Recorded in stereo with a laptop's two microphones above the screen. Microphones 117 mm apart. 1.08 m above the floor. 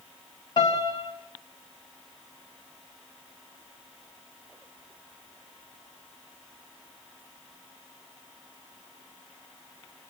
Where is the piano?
40° left (ahead or behind), 3.5 m.